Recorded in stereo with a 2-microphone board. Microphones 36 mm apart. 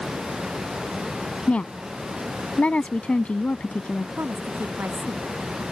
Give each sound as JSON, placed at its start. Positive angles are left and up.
{"t": 1.5, "sound": "a woman speaking", "side_deg": 40}
{"t": 4.2, "sound": "a woman speaking", "side_deg": -80}